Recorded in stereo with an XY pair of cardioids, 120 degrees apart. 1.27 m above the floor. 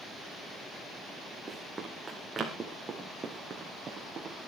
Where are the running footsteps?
10° right, 5 m; by 4.4 s 30° right, 5.5 m.